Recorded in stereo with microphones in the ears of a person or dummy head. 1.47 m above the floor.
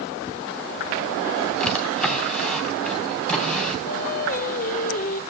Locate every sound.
1.6 s a drawer: 5° left (ahead or behind), 3 m
3.9 s singing: 45° left (ahead or behind), 0.9 m